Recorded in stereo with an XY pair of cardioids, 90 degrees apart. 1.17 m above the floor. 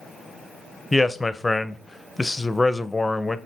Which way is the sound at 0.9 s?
15° left.